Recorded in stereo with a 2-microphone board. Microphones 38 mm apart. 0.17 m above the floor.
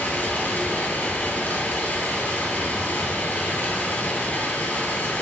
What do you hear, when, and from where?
0.0 s running water: 50° left (ahead or behind), 1.5 m